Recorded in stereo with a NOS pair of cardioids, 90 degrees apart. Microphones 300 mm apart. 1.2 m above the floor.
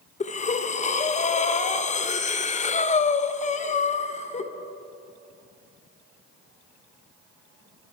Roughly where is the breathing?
Ahead left.